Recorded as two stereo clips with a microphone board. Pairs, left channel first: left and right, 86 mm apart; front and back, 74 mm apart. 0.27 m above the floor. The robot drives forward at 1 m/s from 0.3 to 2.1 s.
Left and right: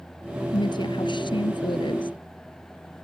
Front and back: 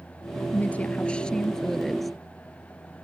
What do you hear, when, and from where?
0.5 s a woman speaking: 65° left; by 2.1 s 90° left